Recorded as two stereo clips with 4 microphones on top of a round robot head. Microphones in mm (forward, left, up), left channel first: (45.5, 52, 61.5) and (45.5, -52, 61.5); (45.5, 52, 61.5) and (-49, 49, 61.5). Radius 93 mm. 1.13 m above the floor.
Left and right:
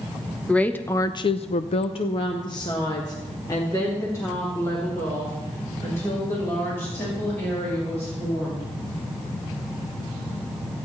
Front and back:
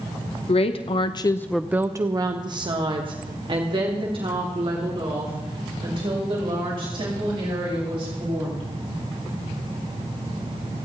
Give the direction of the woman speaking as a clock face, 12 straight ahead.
12 o'clock.